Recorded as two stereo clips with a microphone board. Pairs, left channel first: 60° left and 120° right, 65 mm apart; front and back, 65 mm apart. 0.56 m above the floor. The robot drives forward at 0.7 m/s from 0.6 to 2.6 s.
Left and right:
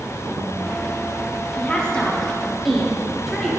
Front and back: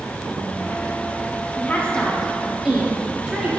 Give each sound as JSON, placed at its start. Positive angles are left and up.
{"t": 1.6, "sound": "a woman speaking", "azimuth_deg": 15, "distance_m": 1.0}